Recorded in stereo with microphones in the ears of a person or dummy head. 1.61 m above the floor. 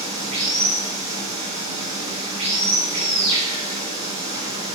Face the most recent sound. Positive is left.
turn(degrees=-30)  # may be behind; listen again after turning